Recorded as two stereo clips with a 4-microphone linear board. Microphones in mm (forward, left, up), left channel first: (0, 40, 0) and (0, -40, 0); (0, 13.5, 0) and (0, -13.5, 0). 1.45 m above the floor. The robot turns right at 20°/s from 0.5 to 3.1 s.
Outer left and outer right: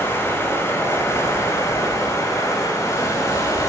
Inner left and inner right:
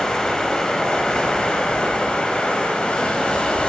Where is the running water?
50° left, 0.7 m; by 3.7 s 100° left, 0.7 m.